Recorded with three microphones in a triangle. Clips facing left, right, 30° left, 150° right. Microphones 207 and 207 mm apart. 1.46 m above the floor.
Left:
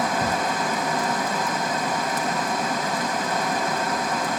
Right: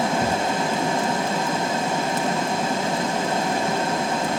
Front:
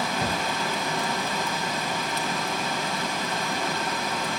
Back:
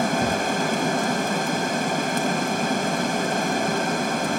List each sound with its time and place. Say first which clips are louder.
0.0 s running water: right 2 dB, back 6 dB; 145° right, 0.7 m